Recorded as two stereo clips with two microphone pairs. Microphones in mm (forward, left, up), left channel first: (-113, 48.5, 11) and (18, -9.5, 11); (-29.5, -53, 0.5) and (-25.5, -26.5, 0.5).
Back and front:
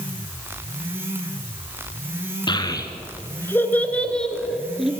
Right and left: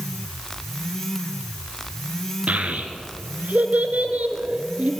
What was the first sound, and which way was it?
A child speaking, 100° left.